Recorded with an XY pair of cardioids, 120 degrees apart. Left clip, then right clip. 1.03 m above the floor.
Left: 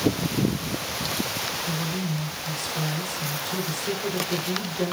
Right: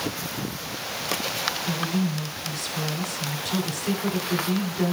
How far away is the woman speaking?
About 2.5 m.